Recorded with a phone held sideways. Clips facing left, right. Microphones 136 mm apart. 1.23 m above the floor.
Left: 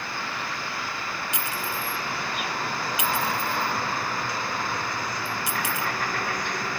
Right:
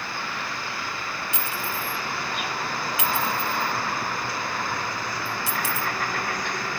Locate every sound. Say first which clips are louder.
1.3 s a clink: even; 20° left (ahead or behind), 0.9 m